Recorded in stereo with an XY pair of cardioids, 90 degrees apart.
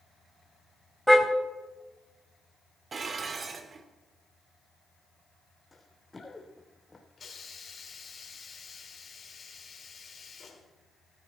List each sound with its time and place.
1.1 s a car horn: straight ahead, 3 m
2.9 s dishes clattering: 45° right, 1.9 m
5.7 s running footsteps: 20° left, 3.5 m
7.2 s a hiss: 40° left, 4 m